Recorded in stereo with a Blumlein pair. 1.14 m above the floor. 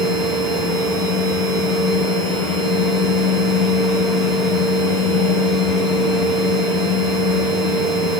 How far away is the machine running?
About 0.8 m.